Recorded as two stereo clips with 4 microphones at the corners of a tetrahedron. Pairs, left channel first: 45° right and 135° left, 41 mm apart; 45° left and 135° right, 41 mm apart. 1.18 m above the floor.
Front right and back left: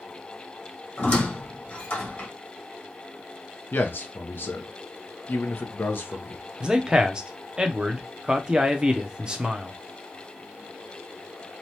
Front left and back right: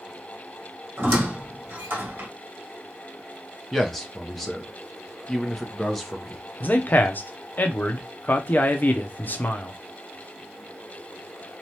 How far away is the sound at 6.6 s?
About 0.5 m.